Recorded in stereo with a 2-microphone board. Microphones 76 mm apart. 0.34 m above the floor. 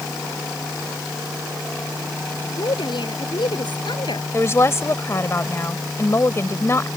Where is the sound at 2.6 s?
80° left.